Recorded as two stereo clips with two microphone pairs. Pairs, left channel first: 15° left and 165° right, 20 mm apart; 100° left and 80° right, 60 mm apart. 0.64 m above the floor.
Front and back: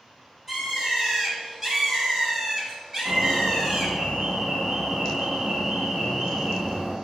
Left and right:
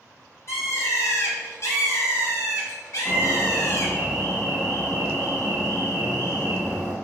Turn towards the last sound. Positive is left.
turn(degrees=160)